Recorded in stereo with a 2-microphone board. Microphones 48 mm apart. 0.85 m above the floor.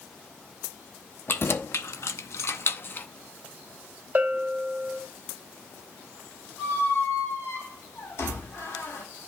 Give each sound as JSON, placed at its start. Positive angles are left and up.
{"t": 1.3, "sound": "keys jangling", "side_deg": 50, "distance_m": 0.9}
{"t": 4.2, "sound": "a bell", "side_deg": -30, "distance_m": 0.8}
{"t": 6.6, "sound": "a squeak", "side_deg": 70, "distance_m": 3.5}